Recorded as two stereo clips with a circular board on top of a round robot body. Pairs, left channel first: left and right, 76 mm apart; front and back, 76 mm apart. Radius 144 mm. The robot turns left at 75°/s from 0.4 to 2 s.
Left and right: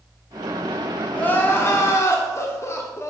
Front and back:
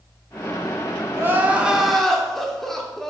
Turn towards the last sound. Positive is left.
turn(degrees=85)